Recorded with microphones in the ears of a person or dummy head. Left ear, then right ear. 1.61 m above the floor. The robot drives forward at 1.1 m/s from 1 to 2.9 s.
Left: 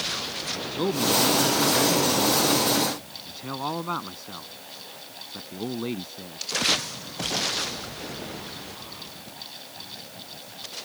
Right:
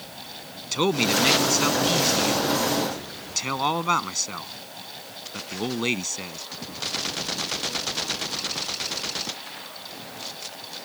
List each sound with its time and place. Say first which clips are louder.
0.7 s a man speaking: right 3 dB; 70° right (ahead or behind); by 6.4 s 75° right (ahead or behind)